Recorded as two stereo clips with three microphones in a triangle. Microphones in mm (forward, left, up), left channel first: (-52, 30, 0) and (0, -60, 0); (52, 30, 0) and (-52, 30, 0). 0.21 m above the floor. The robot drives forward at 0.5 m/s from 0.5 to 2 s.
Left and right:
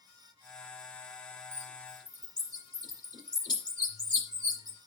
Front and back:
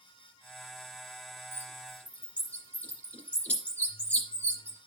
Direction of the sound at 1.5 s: 70° left.